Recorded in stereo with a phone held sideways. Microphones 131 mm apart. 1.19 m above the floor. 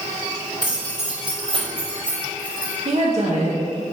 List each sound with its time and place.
0.6 s keys jangling: 60° right (ahead or behind), 3 m; by 2.8 s 30° right (ahead or behind), 2.5 m
2.9 s a woman speaking: 55° right (ahead or behind), 1.4 m